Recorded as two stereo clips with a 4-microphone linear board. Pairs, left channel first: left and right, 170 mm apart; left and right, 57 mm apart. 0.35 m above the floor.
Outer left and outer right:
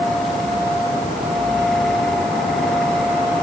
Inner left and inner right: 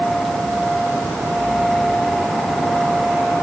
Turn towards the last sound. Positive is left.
No sound to turn to.